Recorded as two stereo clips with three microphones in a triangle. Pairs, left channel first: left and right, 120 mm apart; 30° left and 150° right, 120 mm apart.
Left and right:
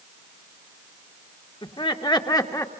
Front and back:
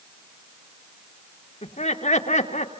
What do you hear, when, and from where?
1.6 s laughter: 45° left, 1.9 m; by 2.7 s 30° left, 2 m